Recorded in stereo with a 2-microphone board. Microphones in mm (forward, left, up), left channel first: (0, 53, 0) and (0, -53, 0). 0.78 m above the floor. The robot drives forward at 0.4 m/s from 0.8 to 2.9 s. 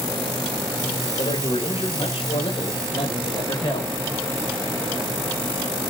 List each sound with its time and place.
1.2 s a man speaking: 75° left (ahead or behind), 2.5 m; by 4.0 s 60° left (ahead or behind), 2.5 m